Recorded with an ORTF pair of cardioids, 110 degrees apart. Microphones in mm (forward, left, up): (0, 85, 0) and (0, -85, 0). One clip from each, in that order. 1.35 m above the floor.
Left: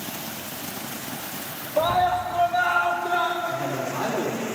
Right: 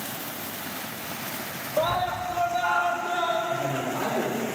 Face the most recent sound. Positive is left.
turn(degrees=35)